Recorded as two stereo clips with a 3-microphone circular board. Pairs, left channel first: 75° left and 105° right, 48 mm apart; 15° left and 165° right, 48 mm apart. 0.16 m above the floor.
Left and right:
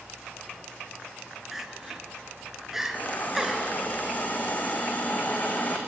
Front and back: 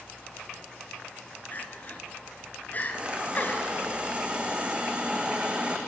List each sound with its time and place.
1.5 s crying: 25° right, 2 m
2.9 s a hiss: 130° left, 3 m